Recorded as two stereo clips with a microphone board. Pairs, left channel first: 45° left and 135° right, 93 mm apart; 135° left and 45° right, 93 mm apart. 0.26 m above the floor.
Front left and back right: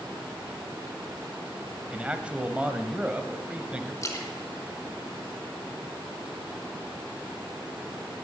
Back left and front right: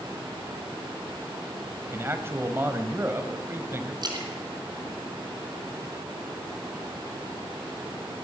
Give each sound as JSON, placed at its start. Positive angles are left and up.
{"t": 1.9, "sound": "a man speaking", "azimuth_deg": -70, "distance_m": 1.2}
{"t": 4.0, "sound": "a splash", "azimuth_deg": -10, "distance_m": 3.0}